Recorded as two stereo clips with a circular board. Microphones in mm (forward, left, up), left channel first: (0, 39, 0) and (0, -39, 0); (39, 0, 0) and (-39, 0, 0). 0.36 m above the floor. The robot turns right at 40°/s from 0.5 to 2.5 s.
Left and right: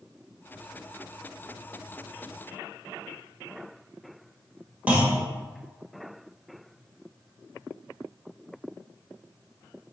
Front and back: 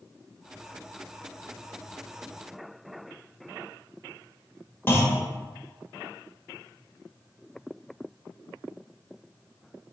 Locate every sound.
4.9 s a clunk: 35° right, 0.8 m